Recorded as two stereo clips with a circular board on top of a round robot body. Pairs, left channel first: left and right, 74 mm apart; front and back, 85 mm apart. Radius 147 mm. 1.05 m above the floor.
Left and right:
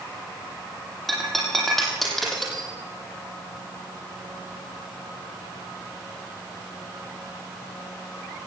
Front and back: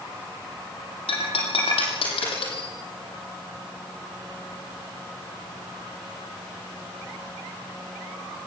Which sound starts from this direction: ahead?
Breaking glass, at 1.1 s.